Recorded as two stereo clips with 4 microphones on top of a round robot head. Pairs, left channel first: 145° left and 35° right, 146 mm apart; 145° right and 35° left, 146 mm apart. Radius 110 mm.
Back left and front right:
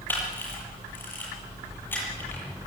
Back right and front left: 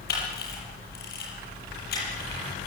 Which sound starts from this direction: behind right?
A camera shutter, at 0.1 s.